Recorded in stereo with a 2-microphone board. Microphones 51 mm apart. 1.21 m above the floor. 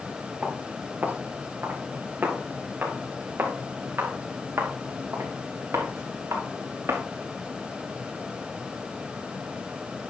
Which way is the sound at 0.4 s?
30° right (ahead or behind).